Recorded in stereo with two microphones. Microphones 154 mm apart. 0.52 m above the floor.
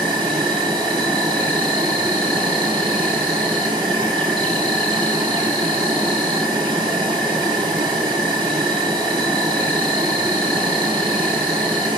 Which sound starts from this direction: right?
An insect, at 0.0 s.